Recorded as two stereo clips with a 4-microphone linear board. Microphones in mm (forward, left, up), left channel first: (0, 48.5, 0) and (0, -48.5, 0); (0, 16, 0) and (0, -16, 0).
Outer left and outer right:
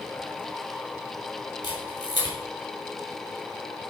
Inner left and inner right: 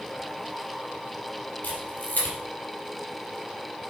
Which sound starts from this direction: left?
A camera shutter, at 1.6 s.